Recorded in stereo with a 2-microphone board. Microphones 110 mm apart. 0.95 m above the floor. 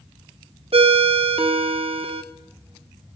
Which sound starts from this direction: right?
A ringtone, at 0.7 s.